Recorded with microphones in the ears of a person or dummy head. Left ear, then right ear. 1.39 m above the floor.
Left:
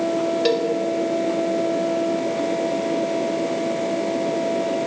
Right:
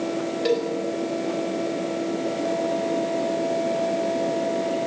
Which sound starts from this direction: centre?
A cowbell, at 0.5 s.